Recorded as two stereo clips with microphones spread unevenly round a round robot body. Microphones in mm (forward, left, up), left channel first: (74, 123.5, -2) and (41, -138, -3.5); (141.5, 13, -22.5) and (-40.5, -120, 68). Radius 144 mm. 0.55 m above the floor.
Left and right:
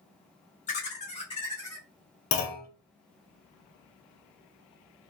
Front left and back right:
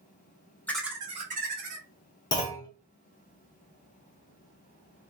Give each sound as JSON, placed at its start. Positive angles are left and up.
{"t": 0.7, "sound": "laughter", "azimuth_deg": 55, "distance_m": 0.8}
{"t": 2.3, "sound": "a clunk", "azimuth_deg": 85, "distance_m": 0.8}